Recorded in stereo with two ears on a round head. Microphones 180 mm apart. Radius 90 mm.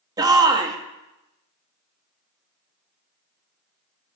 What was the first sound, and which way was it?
A shout, 20° right (ahead or behind).